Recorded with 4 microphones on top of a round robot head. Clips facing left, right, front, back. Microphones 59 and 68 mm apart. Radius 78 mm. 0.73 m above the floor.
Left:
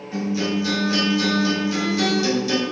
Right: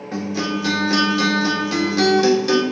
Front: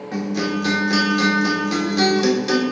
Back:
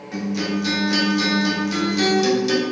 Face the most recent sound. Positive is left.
turn(degrees=-50)